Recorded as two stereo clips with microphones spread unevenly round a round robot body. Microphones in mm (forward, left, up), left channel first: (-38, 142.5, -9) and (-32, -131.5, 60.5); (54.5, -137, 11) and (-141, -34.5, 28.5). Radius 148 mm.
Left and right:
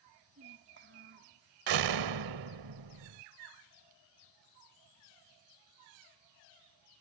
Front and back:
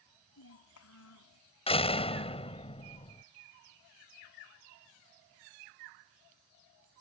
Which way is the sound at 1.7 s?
90° right.